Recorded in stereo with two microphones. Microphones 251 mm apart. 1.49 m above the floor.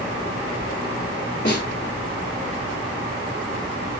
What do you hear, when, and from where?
1.4 s a snare drum: 40° left (ahead or behind), 3 m